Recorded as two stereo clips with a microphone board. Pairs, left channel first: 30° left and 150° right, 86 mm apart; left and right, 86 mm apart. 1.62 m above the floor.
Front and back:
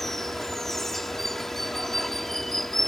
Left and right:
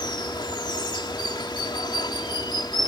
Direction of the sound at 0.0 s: 115° left.